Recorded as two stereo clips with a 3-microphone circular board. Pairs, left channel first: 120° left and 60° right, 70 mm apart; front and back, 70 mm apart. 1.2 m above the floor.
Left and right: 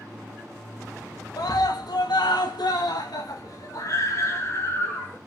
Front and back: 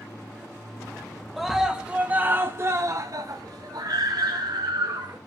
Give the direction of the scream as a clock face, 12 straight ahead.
9 o'clock.